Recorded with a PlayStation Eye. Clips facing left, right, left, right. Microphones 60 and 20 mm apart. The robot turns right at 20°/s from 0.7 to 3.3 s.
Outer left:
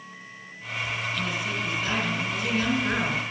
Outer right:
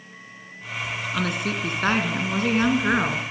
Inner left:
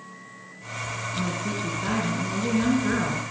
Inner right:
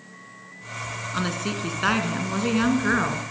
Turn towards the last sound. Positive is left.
turn(degrees=-30)